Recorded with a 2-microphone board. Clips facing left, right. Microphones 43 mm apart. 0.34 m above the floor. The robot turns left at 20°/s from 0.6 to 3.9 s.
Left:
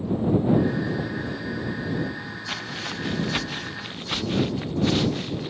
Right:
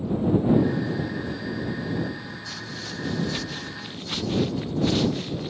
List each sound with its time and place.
2.5 s footsteps: 65° left (ahead or behind); by 5.5 s 15° left (ahead or behind)